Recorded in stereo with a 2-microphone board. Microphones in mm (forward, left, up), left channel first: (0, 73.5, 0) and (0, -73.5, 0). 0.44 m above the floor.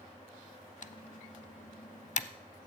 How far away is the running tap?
I don't hear a running tap.